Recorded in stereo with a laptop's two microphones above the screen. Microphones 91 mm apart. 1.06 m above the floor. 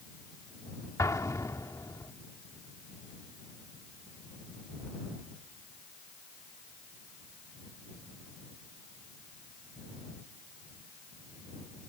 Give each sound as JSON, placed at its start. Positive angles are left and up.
{"t": 1.0, "sound": "an explosion", "side_deg": 35}